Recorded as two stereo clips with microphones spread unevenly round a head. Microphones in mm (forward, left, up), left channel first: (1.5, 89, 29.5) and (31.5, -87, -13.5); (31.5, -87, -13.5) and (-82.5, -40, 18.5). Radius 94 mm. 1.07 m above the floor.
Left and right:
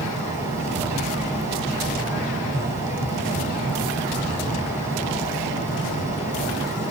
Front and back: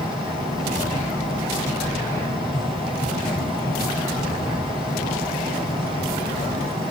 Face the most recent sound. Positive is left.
turn(degrees=50)